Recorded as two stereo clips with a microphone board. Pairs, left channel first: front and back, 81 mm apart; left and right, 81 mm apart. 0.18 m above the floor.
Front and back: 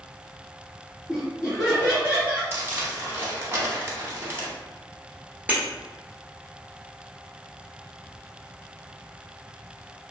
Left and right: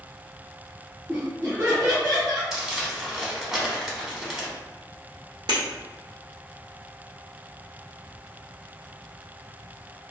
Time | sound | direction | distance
1.1 | laughter | 85° right | 1.5 m
2.5 | crumpling | 165° right | 0.8 m
5.5 | breaking glass | 110° right | 1.4 m